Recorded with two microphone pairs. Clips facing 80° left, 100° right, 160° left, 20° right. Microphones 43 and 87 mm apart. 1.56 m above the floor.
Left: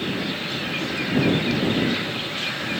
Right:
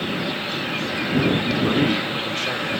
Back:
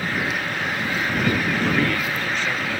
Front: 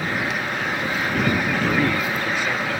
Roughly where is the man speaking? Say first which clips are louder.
Right 3 dB, front 1 dB; right.